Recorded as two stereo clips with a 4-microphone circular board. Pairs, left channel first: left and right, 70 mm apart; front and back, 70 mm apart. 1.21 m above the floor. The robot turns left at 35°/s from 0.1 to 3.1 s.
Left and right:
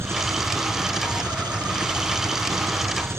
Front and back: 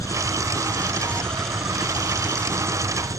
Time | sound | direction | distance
0.0 | an engine running | 40° right | ?